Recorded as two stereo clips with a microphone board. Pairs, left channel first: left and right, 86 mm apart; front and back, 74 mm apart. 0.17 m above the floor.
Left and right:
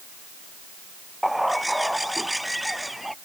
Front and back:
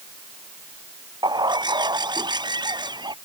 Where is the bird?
Straight behind.